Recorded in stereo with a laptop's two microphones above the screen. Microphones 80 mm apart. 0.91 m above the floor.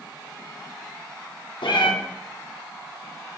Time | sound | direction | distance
1.6 | a cat meowing | 80° left | 1.0 m